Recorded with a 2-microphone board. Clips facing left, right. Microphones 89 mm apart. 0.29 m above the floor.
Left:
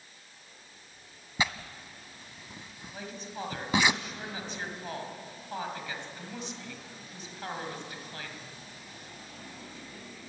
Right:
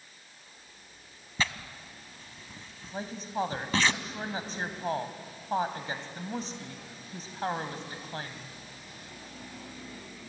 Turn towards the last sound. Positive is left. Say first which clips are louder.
# right 7 dB
turn(degrees=-40)  # may be behind; listen again after turning